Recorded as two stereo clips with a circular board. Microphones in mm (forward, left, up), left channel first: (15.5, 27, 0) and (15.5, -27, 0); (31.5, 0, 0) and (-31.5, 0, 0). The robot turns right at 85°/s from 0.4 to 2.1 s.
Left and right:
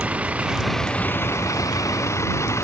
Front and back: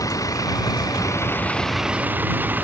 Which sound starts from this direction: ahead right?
A vehicle, at 0.0 s.